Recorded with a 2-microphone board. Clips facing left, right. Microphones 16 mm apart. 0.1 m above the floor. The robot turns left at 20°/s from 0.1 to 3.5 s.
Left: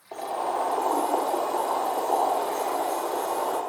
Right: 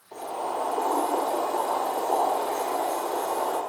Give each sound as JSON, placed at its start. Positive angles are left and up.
{"t": 0.1, "sound": "boiling", "azimuth_deg": 85, "distance_m": 2.5}